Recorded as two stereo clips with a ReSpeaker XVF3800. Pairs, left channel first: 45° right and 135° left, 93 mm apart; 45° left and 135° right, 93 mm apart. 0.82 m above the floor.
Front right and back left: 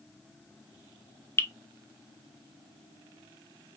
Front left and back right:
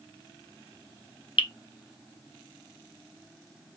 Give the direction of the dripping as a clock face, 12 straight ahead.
11 o'clock.